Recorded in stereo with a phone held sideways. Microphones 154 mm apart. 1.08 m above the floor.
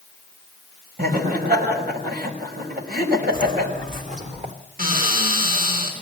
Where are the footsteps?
60° right (ahead or behind), 2.5 m; by 4.5 s 45° right (ahead or behind), 3.5 m.